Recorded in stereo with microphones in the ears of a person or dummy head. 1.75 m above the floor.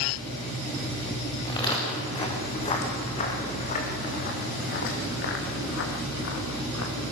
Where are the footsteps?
20° left (ahead or behind), 6 m; by 7.0 s 70° left (ahead or behind), 5 m.